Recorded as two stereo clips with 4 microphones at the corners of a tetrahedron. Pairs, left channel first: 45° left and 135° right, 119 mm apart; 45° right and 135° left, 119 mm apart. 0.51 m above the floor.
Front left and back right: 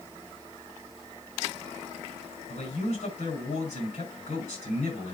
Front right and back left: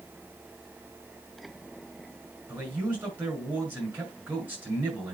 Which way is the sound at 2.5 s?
60° left.